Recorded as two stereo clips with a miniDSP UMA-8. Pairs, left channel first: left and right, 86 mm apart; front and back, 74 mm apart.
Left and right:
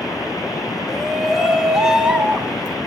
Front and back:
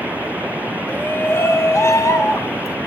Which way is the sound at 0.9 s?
5° left.